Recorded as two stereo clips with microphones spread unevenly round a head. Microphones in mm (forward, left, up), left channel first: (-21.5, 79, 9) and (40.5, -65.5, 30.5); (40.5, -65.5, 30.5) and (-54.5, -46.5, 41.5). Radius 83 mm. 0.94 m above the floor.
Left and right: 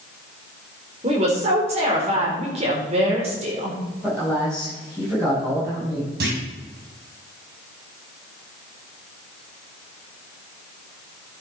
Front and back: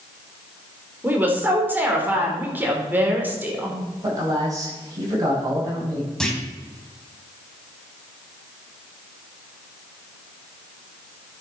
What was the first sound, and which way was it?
A woman speaking, 120° right.